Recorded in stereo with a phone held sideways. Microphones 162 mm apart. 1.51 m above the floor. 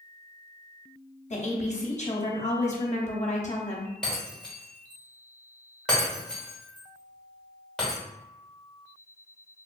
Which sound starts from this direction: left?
A woman speaking, at 1.3 s.